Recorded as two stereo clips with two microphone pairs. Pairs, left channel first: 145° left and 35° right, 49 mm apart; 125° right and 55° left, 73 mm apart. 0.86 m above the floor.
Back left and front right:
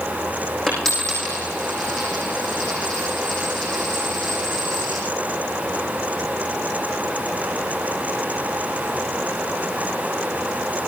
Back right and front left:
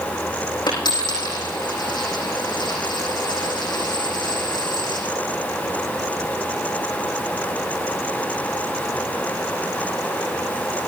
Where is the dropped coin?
135° right, 7 m.